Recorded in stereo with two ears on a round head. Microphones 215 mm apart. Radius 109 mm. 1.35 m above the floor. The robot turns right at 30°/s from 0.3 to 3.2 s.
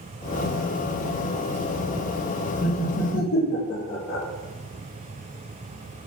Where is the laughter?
35° left (ahead or behind), 0.7 m; by 4.2 s 50° left (ahead or behind), 0.7 m.